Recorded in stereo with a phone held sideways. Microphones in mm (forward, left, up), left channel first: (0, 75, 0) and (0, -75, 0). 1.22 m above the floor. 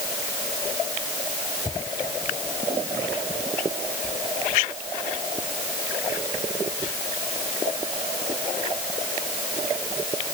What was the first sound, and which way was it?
Only background noise.